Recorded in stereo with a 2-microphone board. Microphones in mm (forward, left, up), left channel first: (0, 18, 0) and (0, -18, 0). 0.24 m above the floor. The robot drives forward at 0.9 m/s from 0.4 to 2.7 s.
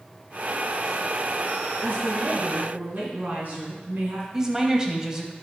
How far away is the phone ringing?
I don't hear a phone ringing.